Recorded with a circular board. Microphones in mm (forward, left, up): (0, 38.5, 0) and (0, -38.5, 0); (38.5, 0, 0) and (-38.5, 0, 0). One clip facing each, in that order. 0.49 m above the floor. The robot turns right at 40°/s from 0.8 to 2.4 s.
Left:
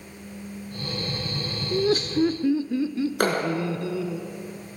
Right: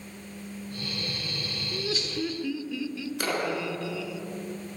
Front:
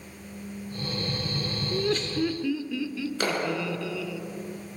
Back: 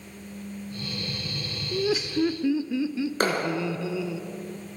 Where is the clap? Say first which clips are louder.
Left 5 dB, back 2 dB; 130° left, 5 m.